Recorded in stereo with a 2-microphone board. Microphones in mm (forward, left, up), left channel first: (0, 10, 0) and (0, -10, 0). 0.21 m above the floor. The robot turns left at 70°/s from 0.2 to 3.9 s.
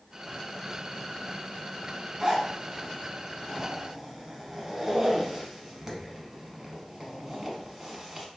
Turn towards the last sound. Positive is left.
turn(degrees=-20)  # may be behind; listen again after turning